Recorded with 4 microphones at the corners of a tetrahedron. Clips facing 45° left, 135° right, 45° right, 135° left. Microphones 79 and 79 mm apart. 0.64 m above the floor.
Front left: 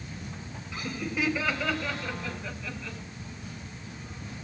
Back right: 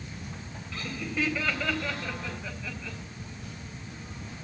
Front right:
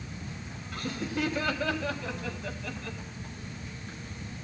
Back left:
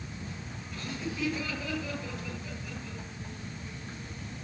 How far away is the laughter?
About 4 m.